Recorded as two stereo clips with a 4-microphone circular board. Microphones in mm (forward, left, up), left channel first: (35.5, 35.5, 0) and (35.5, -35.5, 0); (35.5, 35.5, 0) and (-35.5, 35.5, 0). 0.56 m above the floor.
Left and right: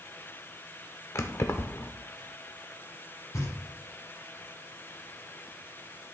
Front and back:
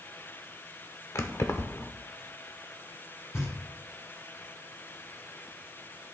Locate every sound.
1.1 s keys jangling: 45° left, 0.9 m
3.3 s knocking: 50° left, 4.5 m